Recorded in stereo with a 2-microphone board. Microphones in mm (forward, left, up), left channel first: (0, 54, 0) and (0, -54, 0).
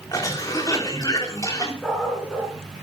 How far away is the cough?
About 3.5 m.